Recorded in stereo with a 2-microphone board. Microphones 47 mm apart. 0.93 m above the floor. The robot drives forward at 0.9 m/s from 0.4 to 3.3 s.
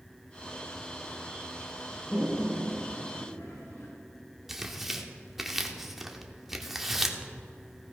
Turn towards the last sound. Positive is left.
turn(degrees=-5)  # may be behind; listen again after turning